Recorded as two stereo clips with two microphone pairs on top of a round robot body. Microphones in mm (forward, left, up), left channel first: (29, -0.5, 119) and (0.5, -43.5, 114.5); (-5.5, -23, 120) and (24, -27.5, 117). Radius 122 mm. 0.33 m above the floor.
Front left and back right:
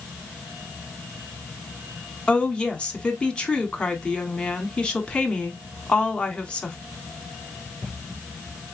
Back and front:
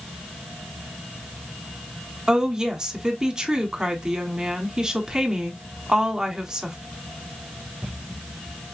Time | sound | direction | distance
2.3 | a woman speaking | straight ahead | 1.3 m